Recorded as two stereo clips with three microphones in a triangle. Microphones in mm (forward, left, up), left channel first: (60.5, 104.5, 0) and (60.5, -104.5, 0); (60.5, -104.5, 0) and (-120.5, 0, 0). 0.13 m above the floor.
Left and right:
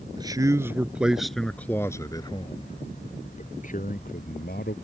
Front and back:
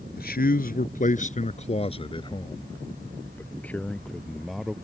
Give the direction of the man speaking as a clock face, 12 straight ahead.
1 o'clock.